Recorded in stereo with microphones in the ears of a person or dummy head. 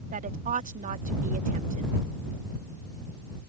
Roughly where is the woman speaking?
Right.